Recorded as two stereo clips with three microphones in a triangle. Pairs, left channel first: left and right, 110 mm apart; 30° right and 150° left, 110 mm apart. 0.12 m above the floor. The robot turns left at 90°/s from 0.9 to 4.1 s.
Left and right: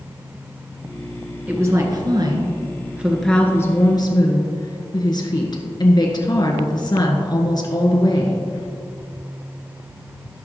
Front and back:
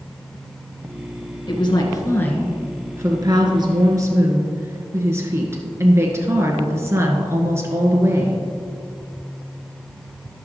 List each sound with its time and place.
1.5 s a woman speaking: 25° right, 1.6 m; by 8.4 s 100° left, 1.6 m